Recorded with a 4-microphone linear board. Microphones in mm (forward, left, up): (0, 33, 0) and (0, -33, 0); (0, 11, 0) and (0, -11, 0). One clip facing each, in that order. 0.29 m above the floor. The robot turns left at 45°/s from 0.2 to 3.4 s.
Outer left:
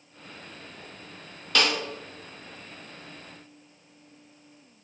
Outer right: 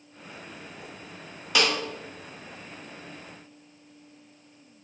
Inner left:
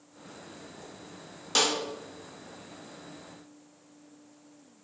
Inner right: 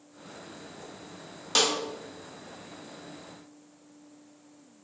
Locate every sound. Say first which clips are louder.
1.6 s a snare drum: even, inner right 1 dB; 10° right (ahead or behind), 1.0 m; by 1.7 s 5° right (ahead or behind), 1.0 m